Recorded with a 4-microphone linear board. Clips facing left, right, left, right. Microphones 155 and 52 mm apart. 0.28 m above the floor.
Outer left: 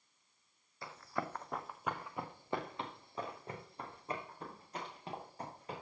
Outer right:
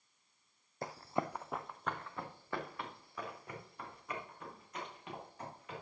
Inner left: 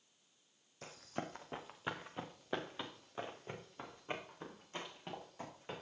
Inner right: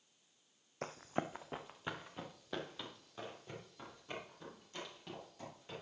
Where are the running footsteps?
45° right (ahead or behind), 0.6 m; by 5.8 s 35° left (ahead or behind), 4 m.